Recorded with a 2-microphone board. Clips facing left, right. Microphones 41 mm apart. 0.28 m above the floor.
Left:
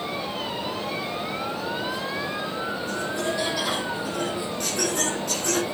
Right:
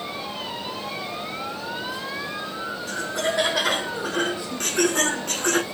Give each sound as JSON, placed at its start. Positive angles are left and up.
{"t": 2.9, "sound": "laughter", "side_deg": -70, "distance_m": 4.0}